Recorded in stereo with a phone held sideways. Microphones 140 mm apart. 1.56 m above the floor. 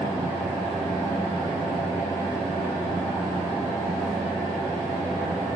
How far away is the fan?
About 1.3 m.